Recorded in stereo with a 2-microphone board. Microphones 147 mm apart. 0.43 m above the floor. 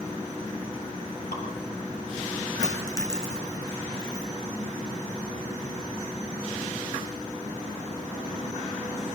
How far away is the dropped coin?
About 5 m.